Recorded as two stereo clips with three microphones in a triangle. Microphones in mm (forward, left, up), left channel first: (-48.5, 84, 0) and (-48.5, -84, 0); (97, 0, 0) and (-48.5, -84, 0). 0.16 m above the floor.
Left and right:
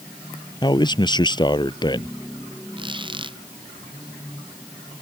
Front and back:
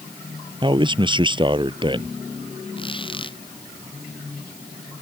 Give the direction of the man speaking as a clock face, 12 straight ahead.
7 o'clock.